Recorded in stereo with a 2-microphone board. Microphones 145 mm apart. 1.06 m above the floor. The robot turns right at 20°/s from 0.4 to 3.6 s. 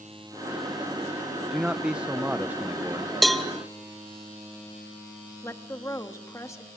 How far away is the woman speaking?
About 1.3 m.